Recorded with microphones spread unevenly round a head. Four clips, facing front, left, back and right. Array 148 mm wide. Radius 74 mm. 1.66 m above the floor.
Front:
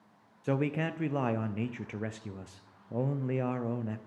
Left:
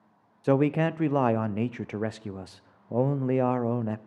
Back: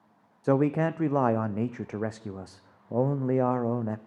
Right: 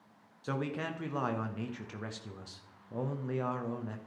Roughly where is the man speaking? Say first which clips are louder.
Left 13 dB, back 7 dB; behind left.